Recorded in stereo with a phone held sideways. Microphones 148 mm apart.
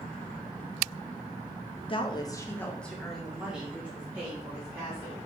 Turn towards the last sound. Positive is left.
turn(degrees=-20)  # may be behind; listen again after turning